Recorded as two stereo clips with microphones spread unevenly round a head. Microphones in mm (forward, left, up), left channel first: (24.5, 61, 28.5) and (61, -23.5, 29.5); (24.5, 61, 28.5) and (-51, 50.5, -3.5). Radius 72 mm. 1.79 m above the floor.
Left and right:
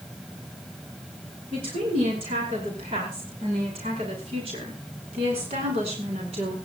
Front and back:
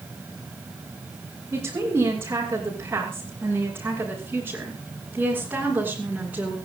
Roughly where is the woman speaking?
Right.